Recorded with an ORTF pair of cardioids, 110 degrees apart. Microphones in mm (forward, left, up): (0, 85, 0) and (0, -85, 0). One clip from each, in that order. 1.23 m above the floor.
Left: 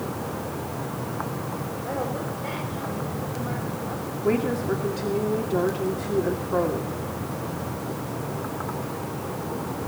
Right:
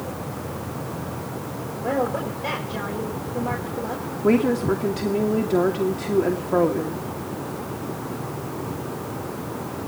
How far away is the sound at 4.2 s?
About 2.5 m.